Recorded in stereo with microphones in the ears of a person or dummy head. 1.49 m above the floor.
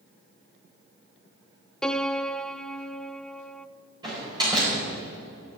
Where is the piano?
Centre (ahead or behind), 0.6 m.